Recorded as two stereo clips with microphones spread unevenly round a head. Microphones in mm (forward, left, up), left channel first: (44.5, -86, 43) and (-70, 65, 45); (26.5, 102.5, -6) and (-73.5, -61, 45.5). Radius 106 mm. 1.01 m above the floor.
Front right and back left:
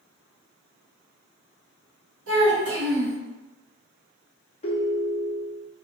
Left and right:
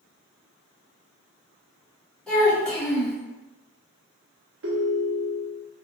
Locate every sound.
2.3 s a child speaking: 145° left, 1.5 m
4.6 s a ringtone: 110° right, 0.7 m